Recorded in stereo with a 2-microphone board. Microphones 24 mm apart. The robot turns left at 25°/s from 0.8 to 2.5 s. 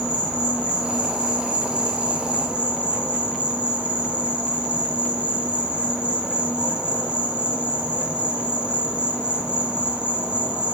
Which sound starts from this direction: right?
An insect, at 0.0 s.